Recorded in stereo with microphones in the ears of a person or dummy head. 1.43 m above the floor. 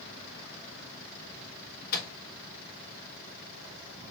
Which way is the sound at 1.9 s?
50° left (ahead or behind).